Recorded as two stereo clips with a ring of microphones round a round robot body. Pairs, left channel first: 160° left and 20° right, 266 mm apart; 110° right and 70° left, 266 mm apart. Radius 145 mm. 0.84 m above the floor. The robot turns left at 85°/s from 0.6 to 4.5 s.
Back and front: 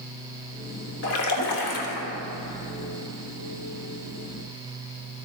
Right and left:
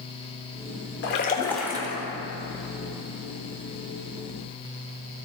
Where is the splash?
155° right, 1.2 m; by 2.1 s 115° left, 1.2 m.